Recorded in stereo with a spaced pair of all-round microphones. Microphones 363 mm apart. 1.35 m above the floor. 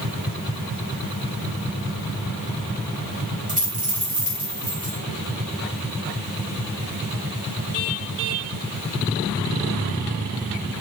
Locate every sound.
3.5 s a dropped coin: 20° right (ahead or behind), 4 m